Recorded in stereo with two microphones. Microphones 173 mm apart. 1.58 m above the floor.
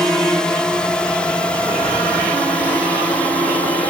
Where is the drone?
5° left (ahead or behind); by 3.9 s 10° left (ahead or behind).